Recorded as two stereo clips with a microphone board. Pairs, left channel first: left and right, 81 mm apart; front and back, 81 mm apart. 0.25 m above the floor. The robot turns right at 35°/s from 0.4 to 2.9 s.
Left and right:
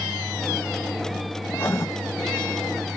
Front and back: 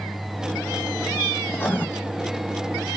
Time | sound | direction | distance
1.5 | writing | 45° left | 1.1 m